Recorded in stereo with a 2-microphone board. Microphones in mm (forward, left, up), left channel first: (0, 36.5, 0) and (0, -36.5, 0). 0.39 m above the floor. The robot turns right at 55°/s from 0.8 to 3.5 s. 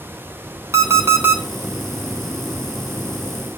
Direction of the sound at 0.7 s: 60° right.